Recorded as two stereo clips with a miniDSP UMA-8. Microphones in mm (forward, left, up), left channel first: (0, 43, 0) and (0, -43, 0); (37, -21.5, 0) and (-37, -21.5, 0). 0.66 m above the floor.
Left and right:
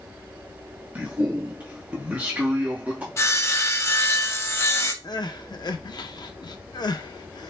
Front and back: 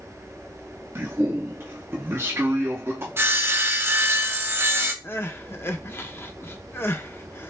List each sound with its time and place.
0.9 s a man speaking: 150° right, 0.8 m
3.2 s sawing: 135° left, 0.7 m
5.0 s crying: 55° left, 0.5 m